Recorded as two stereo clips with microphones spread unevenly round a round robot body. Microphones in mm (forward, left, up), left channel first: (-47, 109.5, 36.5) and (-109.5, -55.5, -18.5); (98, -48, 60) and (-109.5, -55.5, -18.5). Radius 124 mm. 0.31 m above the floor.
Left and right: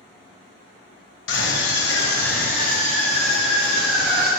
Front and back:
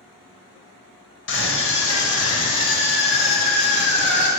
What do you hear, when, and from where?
1.3 s a scream: 50° left, 1.6 m; by 4.3 s 15° right, 2.5 m